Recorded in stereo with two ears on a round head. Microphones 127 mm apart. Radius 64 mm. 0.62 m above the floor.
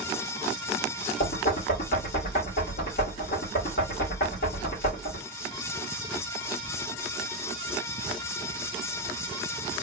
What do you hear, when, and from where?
1.2 s knocking: 65° left (ahead or behind), 1.8 m